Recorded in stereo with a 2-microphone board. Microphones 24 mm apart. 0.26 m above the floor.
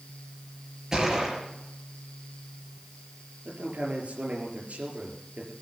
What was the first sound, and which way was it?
A gunshot, 25° right (ahead or behind).